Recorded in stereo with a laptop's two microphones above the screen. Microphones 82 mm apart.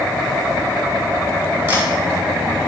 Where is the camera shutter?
25° right (ahead or behind), 3 m.